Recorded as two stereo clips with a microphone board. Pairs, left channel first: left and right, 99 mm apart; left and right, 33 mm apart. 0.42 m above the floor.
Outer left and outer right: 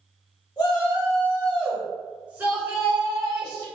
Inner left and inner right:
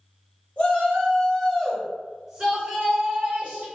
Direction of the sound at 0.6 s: 45° left (ahead or behind).